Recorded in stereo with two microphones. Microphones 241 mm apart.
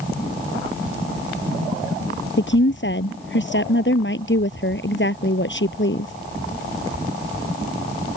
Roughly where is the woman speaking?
Left.